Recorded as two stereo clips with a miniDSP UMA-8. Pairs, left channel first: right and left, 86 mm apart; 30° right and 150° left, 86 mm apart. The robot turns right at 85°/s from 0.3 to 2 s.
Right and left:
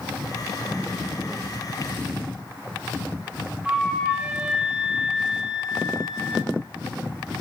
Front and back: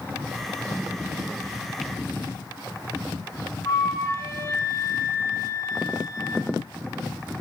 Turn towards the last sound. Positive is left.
turn(degrees=10)